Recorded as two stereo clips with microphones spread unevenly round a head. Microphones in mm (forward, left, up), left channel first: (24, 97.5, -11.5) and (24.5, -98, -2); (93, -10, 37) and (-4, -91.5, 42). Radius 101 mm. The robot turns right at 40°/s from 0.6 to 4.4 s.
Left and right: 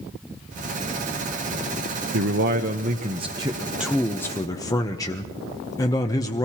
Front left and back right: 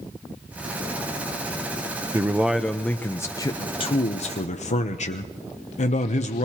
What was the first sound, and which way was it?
A man speaking, 70° right.